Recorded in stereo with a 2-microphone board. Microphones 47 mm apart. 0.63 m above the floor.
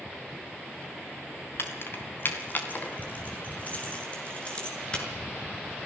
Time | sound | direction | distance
1.6 | keys jangling | 55° left (ahead or behind) | 3 m